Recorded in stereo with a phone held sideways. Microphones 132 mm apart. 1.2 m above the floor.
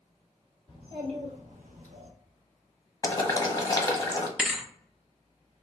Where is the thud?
5° right (ahead or behind), 0.6 m.